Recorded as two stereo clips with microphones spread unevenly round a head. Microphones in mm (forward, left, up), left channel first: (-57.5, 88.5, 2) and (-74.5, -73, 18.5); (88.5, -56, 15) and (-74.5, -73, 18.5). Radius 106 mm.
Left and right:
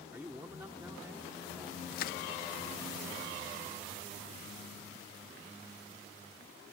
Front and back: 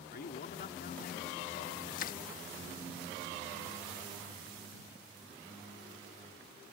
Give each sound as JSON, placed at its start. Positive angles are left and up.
{"t": 0.1, "sound": "a man speaking", "azimuth_deg": -15}
{"t": 1.9, "sound": "crushing", "azimuth_deg": 50}